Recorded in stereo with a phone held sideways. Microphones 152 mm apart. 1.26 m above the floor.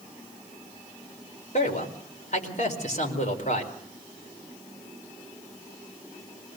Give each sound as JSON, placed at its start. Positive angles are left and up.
{"t": 1.5, "sound": "a man speaking", "side_deg": 50, "distance_m": 4.5}